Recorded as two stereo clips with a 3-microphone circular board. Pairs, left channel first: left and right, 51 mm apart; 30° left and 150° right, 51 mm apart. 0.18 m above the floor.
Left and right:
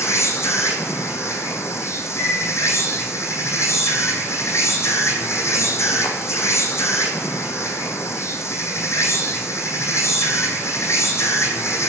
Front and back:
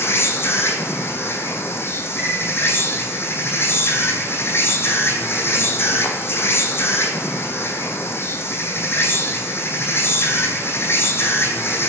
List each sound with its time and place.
0.0 s an insect: 65° left, 2.5 m
2.2 s a piano: 110° left, 8 m